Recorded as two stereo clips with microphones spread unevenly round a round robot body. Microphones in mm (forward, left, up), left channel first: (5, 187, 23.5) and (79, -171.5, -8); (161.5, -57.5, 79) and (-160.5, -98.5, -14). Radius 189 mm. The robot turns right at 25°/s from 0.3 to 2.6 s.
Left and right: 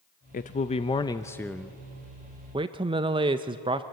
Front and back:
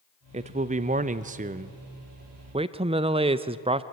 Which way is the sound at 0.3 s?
165° left.